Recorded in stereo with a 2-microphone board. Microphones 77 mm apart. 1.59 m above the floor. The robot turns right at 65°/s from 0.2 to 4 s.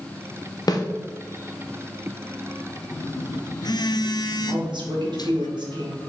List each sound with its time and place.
0.7 s a snare drum: 55° left (ahead or behind), 0.9 m; by 0.8 s 65° left (ahead or behind), 0.9 m
2.9 s a phone buzzing: 30° left, 0.5 m; by 5.5 s 100° left, 0.5 m
4.5 s a woman speaking: 80° right, 2 m